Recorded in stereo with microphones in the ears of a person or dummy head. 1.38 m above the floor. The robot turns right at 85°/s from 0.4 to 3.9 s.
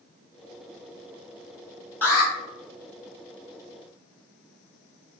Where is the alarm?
10° left (ahead or behind), 2.5 m; by 2.3 s 35° left (ahead or behind), 2.5 m.